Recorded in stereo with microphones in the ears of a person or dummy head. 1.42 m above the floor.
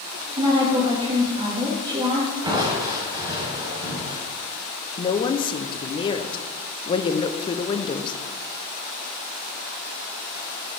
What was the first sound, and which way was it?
A woman speaking, 30° right (ahead or behind).